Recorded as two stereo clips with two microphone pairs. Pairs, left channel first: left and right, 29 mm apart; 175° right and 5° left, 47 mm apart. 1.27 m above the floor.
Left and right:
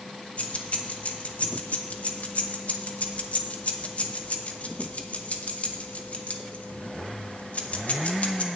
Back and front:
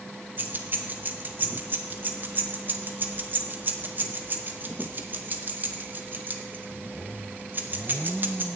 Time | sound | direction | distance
0.4 | keys jangling | 55° left | 0.9 m